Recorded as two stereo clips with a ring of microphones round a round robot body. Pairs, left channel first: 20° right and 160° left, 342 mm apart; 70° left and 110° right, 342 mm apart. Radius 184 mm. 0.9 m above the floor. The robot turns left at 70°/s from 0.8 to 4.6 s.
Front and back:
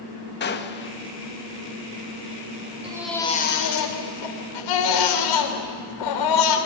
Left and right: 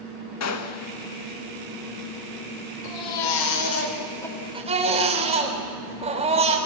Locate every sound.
0.4 s a gunshot: 35° left, 1.5 m; by 0.9 s 25° left, 1.5 m
2.8 s a baby crying: 85° left, 3.5 m; by 6.6 s 40° right, 3.5 m